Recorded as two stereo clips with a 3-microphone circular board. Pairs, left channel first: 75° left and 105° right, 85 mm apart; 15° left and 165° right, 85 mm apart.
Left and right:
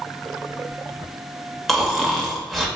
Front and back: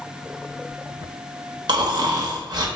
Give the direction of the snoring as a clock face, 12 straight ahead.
7 o'clock.